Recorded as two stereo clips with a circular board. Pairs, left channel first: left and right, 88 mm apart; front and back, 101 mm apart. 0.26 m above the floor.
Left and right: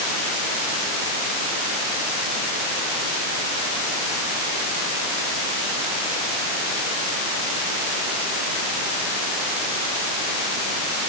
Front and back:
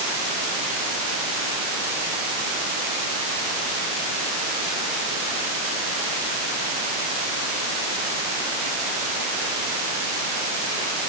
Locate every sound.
Only background noise.